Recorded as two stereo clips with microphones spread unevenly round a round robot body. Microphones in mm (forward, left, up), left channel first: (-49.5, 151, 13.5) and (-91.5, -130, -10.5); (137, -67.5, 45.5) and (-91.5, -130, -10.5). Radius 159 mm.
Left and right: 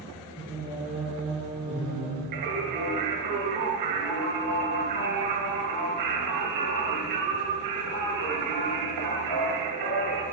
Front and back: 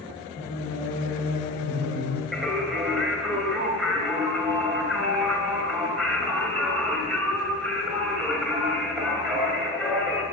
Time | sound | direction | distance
0.4 | singing | 5° right | 5.5 m
2.3 | singing | 75° right | 6 m